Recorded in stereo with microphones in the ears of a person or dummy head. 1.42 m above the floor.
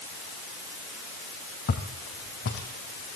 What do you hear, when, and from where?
1.7 s footsteps: 45° left (ahead or behind), 3 m; by 3.2 s 55° left (ahead or behind), 4.5 m